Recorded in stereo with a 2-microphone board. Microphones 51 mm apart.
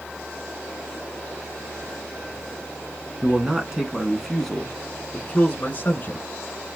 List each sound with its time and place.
3.2 s a man speaking: 20° right (ahead or behind), 1.8 m; by 6.3 s 40° left (ahead or behind), 2 m